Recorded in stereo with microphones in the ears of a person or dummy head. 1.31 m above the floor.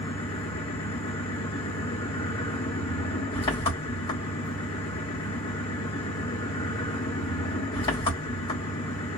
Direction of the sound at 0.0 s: 30° left (ahead or behind).